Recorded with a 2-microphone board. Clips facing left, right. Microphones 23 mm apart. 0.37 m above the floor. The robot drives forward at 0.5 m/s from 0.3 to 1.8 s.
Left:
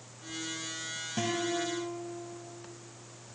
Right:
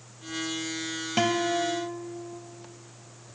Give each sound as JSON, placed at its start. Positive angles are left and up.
{"t": 1.2, "sound": "a guitar", "side_deg": -65, "distance_m": 1.0}